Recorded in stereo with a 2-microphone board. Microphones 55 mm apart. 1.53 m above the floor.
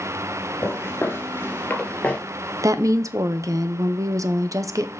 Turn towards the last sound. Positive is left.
turn(degrees=-80)